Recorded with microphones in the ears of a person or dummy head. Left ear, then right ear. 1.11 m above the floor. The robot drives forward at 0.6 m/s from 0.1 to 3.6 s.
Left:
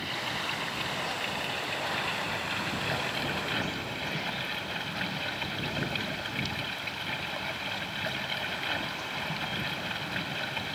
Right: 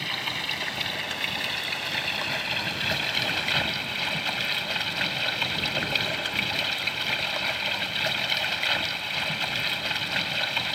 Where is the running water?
30° right (ahead or behind); by 10.8 s 35° right (ahead or behind).